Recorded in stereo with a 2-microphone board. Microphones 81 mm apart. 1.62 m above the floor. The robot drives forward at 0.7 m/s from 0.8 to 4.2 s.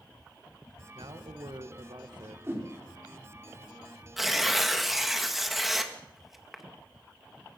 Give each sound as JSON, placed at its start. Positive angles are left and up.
{"t": 0.9, "sound": "a man speaking", "side_deg": -80, "distance_m": 1.8}
{"t": 2.5, "sound": "a whoosh", "side_deg": -30, "distance_m": 5.0}
{"t": 4.2, "sound": "tearing paper", "side_deg": -5, "distance_m": 2.0}